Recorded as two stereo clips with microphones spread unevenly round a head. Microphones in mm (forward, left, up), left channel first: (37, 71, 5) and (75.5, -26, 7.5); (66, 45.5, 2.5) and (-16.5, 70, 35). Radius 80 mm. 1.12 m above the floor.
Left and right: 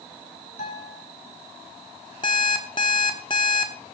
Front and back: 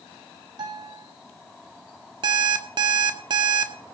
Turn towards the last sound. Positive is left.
turn(degrees=170)